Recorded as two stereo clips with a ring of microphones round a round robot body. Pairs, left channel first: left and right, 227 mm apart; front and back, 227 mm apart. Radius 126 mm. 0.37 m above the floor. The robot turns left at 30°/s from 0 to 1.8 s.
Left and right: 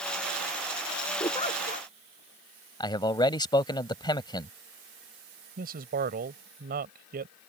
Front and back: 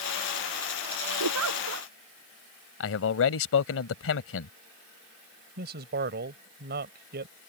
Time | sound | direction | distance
1.2 | a giggle | 170° left | ?
2.8 | a man speaking | 20° left | ?
5.6 | a man speaking | 140° right | ?